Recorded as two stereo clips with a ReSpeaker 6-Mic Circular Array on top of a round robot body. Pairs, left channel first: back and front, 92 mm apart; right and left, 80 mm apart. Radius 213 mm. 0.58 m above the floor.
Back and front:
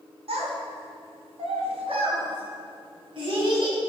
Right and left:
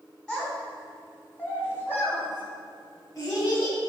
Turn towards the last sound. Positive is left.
turn(degrees=-45)